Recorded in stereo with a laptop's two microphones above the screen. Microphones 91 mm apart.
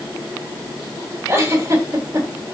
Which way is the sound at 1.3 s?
30° right (ahead or behind).